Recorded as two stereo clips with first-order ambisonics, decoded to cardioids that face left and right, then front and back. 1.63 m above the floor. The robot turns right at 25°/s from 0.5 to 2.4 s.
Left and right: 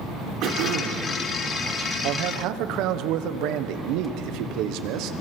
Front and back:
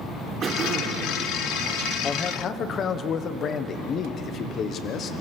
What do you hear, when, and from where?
0.4 s throat clearing: 120° right, 2.5 m; by 1.1 s 105° right, 2.5 m
2.0 s a man speaking: 70° right, 1.1 m; by 5.1 s 60° right, 1.1 m